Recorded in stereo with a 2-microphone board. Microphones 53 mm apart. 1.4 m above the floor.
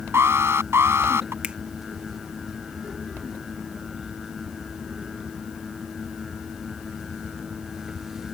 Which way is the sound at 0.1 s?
60° right (ahead or behind).